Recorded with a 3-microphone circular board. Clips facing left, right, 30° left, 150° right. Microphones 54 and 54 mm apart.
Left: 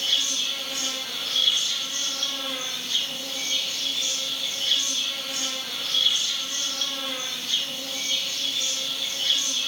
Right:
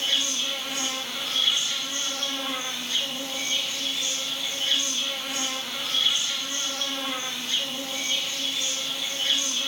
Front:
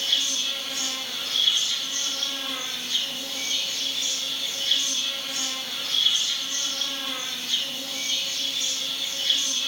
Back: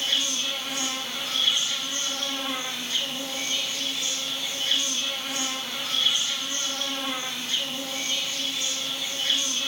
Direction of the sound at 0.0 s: 120° right.